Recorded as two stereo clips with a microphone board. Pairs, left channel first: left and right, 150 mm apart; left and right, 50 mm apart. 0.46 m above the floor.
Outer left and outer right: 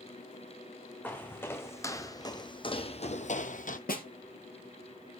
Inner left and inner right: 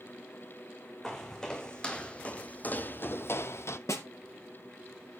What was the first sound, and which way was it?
Footsteps, 10° left (ahead or behind).